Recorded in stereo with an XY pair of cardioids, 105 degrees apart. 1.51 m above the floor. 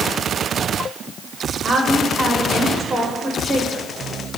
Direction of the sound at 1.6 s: 30° right.